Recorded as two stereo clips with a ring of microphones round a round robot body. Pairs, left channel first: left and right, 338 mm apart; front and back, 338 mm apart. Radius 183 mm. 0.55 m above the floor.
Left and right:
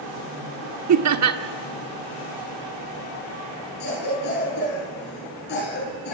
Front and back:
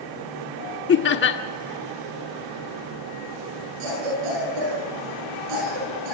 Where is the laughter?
55° right, 1.1 m.